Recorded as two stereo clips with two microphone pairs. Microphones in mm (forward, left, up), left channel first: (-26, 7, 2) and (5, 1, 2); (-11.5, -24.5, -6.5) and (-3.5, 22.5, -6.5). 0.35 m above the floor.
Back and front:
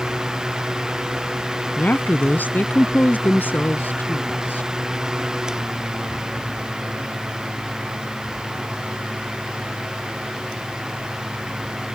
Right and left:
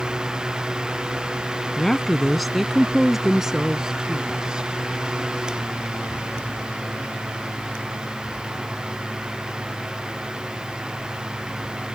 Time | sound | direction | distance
1.8 | a woman speaking | straight behind | ?